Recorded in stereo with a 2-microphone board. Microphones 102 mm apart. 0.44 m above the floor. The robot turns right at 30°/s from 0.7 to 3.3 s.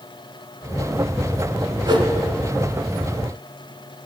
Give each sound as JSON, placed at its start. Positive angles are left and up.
{"t": 1.9, "sound": "a whoosh", "side_deg": -50, "distance_m": 0.7}